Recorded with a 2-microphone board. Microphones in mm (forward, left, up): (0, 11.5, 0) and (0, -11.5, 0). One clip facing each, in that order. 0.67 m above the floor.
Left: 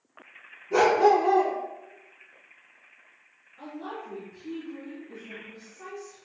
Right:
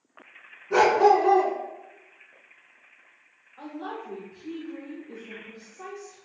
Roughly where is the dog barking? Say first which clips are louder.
Right 1 dB; right.